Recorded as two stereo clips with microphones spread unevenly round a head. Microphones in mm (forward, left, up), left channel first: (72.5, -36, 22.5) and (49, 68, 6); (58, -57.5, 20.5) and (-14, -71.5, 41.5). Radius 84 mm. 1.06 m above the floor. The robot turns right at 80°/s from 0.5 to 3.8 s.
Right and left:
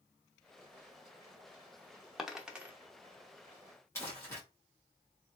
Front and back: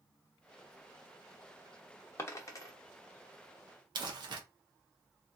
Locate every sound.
2.2 s a dropped coin: 15° right, 0.6 m; by 2.7 s 30° left, 0.6 m
4.0 s crumpling: 155° right, 0.9 m